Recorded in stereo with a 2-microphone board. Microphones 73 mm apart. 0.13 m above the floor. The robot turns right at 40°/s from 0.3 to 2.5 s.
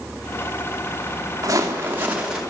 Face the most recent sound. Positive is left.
turn(degrees=-5)